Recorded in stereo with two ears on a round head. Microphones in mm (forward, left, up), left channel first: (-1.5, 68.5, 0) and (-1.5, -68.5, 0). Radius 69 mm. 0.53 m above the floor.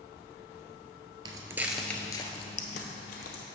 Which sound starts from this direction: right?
Footsteps, at 1.2 s.